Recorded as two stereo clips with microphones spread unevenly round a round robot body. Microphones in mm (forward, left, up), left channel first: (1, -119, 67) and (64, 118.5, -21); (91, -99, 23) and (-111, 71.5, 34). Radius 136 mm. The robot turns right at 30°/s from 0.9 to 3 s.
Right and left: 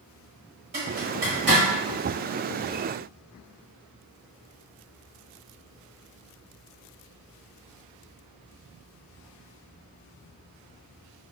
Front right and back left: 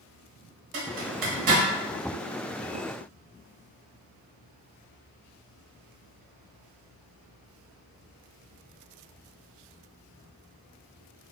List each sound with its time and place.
0.7 s a zipper: 140° left, 1.1 m; by 1.6 s 165° left, 1.1 m